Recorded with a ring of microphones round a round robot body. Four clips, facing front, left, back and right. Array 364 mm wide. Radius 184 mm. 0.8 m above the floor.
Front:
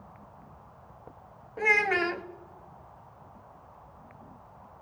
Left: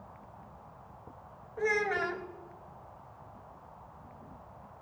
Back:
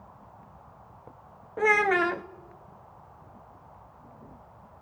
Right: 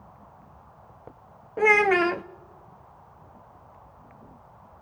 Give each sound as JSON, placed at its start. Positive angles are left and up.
{"t": 1.6, "sound": "a child speaking", "azimuth_deg": -110, "distance_m": 0.9}